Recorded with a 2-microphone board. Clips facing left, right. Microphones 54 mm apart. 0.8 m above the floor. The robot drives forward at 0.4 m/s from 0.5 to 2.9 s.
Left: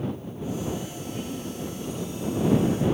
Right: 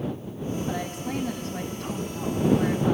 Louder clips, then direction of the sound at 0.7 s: Right 3 dB; 85° right.